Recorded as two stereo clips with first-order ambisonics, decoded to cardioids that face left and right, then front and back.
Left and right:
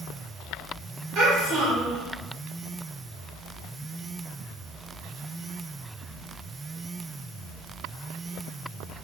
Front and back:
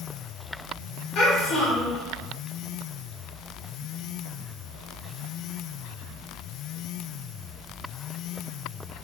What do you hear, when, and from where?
1.1 s a child speaking: 45° right, 1.5 m